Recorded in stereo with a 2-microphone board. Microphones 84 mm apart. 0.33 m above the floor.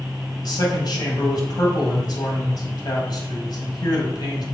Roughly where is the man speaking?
Left.